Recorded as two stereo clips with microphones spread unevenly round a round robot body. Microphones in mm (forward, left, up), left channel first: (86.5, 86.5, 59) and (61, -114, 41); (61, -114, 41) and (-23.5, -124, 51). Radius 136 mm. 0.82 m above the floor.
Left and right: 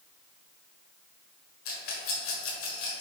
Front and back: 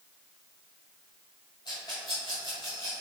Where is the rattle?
75° left, 1.5 m.